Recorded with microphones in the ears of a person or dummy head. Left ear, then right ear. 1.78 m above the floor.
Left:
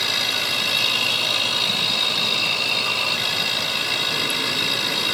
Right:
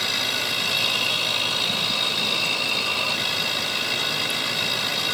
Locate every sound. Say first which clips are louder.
0.0 s a machine running: left 2 dB; 5° left (ahead or behind)